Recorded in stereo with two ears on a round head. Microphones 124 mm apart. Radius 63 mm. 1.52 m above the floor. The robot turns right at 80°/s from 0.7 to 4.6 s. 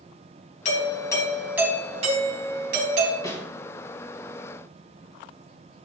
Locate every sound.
0.7 s a doorbell: 125° left, 3.5 m; by 3.1 s 40° right, 3.5 m
3.2 s a snare drum: 25° left (ahead or behind), 2.5 m; by 3.4 s 10° left (ahead or behind), 2.5 m